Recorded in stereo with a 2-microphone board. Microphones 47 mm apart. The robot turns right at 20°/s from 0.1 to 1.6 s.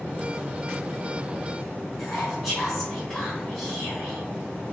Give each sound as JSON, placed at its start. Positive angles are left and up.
{"t": 2.0, "sound": "whispering", "side_deg": 0, "distance_m": 1.1}